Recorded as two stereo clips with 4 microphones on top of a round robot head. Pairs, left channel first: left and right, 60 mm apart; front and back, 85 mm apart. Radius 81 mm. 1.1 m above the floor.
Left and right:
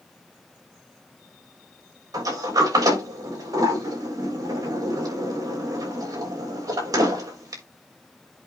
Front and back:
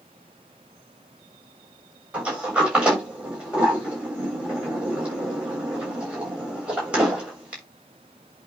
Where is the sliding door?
105° right, 3.5 m.